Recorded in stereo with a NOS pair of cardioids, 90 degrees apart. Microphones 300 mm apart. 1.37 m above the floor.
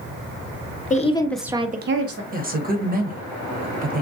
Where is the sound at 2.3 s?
30° right, 0.9 m.